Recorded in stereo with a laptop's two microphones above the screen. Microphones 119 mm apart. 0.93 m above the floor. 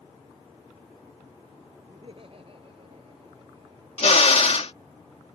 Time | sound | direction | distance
1.9 | laughter | 50° right (ahead or behind) | ?
4.0 | a drill | 65° left (ahead or behind) | ?